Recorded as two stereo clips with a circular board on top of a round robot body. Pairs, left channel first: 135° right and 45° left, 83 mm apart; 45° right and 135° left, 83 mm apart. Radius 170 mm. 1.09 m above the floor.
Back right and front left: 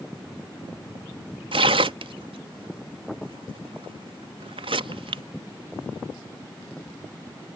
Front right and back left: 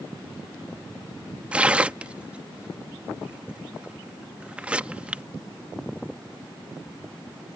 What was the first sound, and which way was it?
Tearing paper, 60° left.